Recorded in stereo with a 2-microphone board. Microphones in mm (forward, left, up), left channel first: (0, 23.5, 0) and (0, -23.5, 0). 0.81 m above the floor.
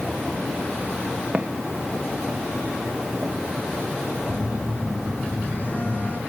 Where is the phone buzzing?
35° left (ahead or behind), 6.5 m.